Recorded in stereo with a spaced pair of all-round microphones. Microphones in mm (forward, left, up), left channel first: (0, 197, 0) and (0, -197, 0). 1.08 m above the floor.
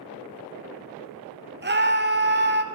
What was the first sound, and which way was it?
A scream, 30° right (ahead or behind).